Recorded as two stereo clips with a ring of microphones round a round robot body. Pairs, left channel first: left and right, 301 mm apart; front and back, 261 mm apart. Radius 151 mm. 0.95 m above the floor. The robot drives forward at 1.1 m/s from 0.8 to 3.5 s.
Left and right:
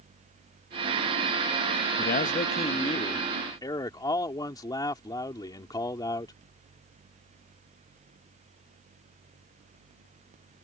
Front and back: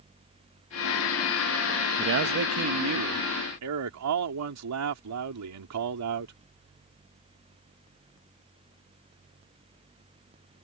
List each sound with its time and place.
2.0 s a man speaking: 145° left; by 6.3 s 165° left